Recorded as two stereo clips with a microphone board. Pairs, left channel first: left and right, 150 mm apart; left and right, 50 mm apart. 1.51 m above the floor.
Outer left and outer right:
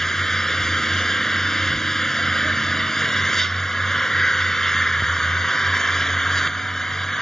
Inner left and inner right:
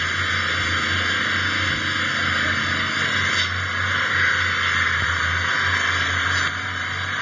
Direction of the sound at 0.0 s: 5° left (ahead or behind).